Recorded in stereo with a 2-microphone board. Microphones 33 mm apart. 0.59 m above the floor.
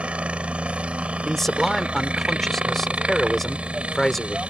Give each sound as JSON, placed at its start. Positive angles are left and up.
{"t": 0.0, "sound": "a helicopter", "side_deg": -35}
{"t": 1.2, "sound": "a man speaking", "side_deg": 10}